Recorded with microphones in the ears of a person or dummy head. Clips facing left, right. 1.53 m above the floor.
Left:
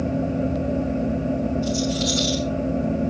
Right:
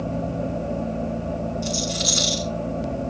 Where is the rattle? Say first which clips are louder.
Left 4 dB; 50° right (ahead or behind), 4.5 m.